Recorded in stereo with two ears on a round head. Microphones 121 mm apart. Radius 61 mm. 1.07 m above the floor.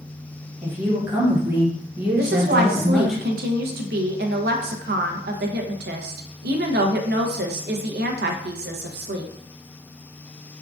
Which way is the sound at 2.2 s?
75° right (ahead or behind).